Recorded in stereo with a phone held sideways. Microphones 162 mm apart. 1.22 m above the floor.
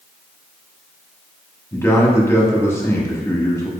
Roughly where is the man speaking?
Centre.